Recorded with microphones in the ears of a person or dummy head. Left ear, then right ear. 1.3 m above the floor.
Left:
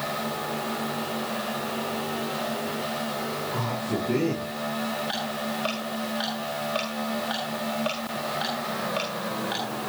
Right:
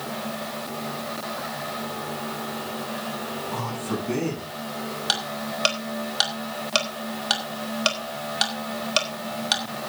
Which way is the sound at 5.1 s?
65° right (ahead or behind).